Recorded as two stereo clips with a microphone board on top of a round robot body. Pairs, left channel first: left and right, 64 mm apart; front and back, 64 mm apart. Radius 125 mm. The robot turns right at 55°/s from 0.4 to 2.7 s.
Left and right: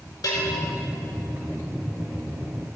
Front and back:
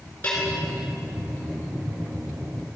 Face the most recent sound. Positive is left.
turn(degrees=-170)